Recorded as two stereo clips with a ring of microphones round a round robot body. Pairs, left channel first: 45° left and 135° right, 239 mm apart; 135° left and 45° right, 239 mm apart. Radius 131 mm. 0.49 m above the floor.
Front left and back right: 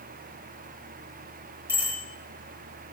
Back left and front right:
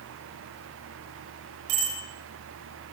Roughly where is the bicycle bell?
Ahead right.